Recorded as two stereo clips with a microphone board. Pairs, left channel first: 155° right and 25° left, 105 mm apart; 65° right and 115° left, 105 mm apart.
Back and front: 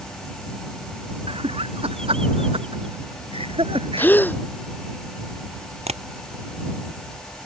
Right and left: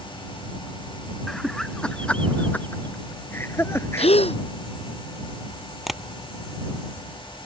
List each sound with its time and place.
1.3 s laughter: 20° left; by 4.1 s 5° right
4.0 s a gasp: 85° right
5.9 s tapping: 25° left